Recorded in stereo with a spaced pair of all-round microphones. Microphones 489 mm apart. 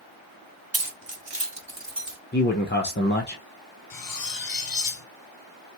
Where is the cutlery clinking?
45° left (ahead or behind), 0.6 m.